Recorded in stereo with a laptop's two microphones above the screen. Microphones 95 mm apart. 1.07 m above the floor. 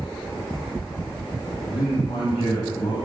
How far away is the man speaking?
About 6.5 m.